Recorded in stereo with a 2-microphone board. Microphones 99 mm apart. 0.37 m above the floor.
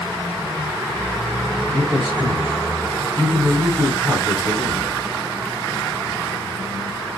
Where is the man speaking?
50° right (ahead or behind), 3 m.